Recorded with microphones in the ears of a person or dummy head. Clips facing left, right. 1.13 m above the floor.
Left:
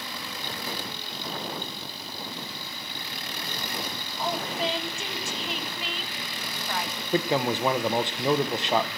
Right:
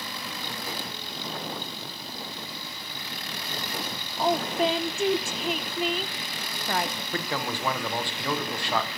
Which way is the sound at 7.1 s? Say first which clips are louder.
Left 9 dB; 20° left (ahead or behind).